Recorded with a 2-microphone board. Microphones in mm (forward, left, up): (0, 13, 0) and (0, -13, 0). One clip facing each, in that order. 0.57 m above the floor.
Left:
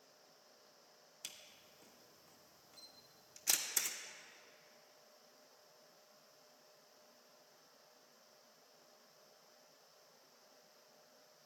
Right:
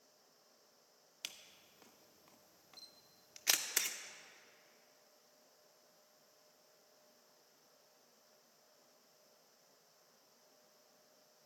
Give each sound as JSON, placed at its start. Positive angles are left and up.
{"t": 1.2, "sound": "a camera shutter", "side_deg": -40, "distance_m": 0.6}